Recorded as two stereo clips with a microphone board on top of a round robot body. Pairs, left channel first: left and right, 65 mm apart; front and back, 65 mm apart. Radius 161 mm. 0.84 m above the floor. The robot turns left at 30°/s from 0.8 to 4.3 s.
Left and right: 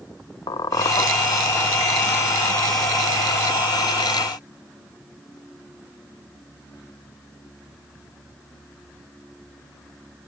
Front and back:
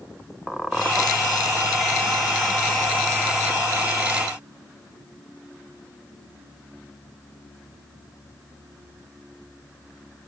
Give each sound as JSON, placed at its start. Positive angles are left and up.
{"t": 0.5, "sound": "a squeak", "azimuth_deg": 90, "distance_m": 0.5}